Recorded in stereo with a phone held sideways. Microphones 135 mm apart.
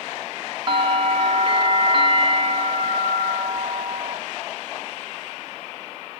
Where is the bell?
35° right (ahead or behind), 1.0 m.